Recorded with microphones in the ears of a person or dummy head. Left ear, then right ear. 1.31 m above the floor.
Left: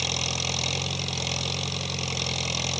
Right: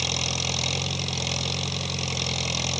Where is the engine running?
Centre (ahead or behind).